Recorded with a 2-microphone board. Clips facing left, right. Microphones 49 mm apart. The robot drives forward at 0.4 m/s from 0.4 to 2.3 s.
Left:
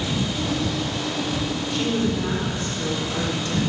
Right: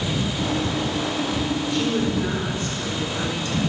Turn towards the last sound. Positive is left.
turn(degrees=50)  # may be behind; listen again after turning